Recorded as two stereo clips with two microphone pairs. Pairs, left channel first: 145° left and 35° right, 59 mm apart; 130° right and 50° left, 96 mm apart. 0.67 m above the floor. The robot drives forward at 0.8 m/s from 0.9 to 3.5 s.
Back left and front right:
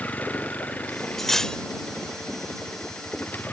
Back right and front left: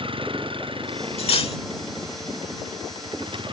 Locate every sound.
0.0 s a vehicle: 80° left
1.2 s cutlery clinking: 130° right; by 1.6 s 140° right